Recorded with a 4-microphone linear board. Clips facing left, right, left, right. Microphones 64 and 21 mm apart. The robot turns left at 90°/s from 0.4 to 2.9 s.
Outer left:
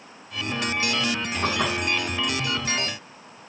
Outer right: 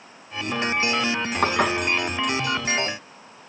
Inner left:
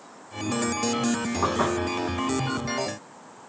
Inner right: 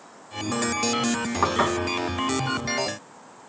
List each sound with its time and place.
1.4 s dishes clattering: 70° right (ahead or behind), 2.5 m; by 1.7 s 80° right, 2.5 m